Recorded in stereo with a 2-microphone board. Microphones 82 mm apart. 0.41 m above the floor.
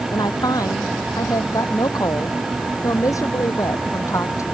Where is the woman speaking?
55° left (ahead or behind); by 4.4 s 40° left (ahead or behind).